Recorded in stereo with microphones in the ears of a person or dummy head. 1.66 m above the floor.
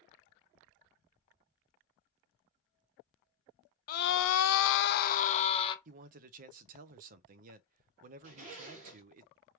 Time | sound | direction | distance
3.9 | a scream | 45° left (ahead or behind) | 0.7 m
5.8 | a man speaking | 45° right (ahead or behind) | 0.6 m
8.2 | a zipper | 40° right (ahead or behind) | 2.5 m